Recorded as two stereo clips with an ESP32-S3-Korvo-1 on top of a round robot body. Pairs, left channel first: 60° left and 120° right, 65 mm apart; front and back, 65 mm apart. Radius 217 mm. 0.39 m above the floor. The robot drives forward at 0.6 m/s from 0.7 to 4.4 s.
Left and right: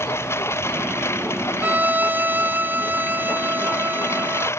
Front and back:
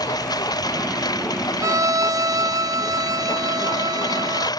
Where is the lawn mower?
10° left.